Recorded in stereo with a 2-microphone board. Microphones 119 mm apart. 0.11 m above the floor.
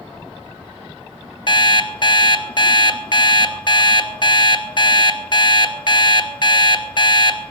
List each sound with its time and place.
1.5 s an alarm clock: 45° left (ahead or behind), 0.9 m